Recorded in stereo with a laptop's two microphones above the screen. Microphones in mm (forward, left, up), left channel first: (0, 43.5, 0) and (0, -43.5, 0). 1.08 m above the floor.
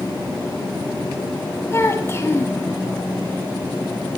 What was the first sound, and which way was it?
A child speaking, 30° left (ahead or behind).